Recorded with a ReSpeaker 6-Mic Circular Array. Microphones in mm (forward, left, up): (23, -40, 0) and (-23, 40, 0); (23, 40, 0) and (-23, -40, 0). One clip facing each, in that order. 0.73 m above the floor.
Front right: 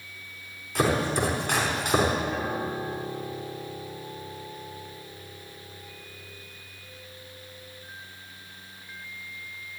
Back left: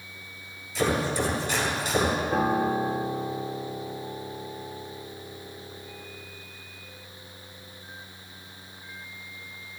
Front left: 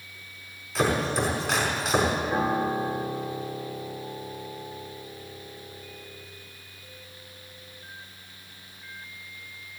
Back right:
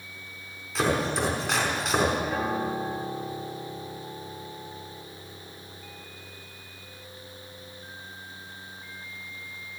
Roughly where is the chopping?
Ahead right.